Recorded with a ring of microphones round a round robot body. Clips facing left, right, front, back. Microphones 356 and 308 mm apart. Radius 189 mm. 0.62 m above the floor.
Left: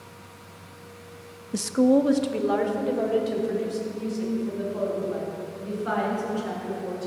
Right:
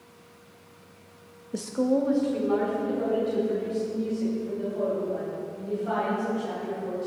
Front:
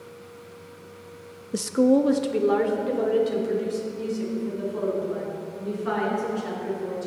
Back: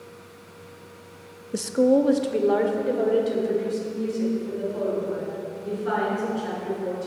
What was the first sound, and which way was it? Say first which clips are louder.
A woman speaking: left 5 dB, even; 65° left.